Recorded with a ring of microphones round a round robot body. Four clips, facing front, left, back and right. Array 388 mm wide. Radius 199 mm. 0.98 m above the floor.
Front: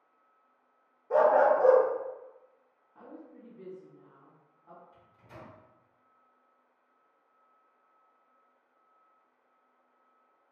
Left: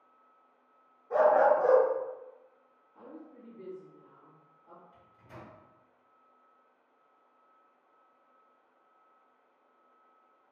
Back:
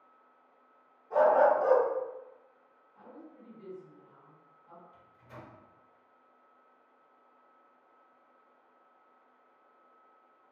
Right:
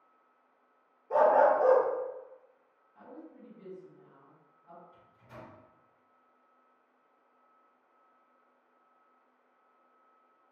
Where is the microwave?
25° left, 1.8 m.